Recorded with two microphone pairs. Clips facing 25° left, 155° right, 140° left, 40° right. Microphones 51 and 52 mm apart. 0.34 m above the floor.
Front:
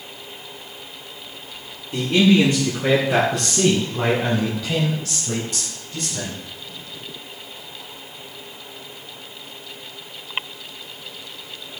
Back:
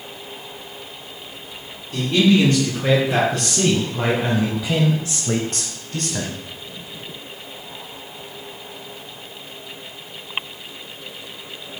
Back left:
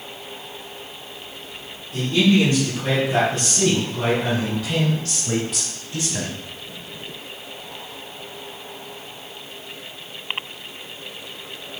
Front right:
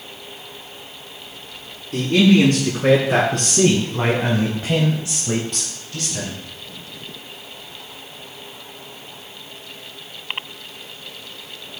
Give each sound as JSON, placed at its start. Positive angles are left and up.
{"t": 1.9, "sound": "a man speaking", "azimuth_deg": -40, "distance_m": 4.5}